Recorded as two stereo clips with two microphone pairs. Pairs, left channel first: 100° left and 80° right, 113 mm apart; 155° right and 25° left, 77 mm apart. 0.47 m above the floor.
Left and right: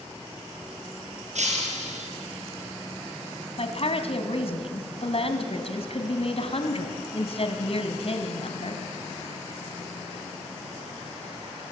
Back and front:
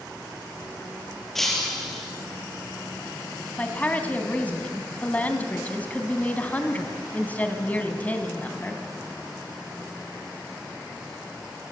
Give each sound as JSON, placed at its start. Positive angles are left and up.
{"t": 1.4, "sound": "breaking glass", "azimuth_deg": -70, "distance_m": 5.5}
{"t": 3.6, "sound": "a woman speaking", "azimuth_deg": 130, "distance_m": 3.0}